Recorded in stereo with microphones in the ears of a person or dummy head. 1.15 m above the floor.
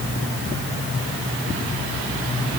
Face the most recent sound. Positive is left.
No sound to turn to.